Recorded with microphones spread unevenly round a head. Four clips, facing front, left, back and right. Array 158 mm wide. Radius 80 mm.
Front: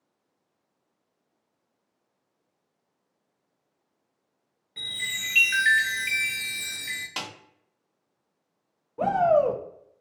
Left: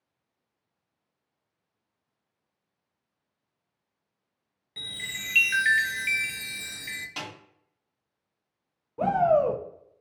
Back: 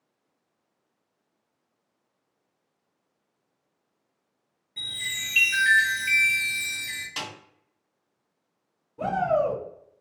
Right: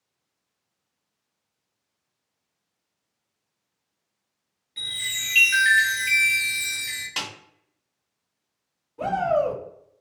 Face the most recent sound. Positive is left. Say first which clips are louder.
# left 1 dB, front 3 dB
turn(degrees=30)